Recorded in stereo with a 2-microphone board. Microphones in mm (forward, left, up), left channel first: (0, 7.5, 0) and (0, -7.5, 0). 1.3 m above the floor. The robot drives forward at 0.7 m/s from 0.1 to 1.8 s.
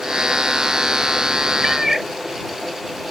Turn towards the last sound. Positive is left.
turn(degrees=-20)  # may be behind; listen again after turning